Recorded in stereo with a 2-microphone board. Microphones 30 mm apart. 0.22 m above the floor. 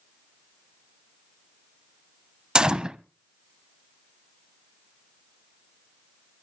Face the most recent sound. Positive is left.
turn(degrees=-25)  # may be behind; listen again after turning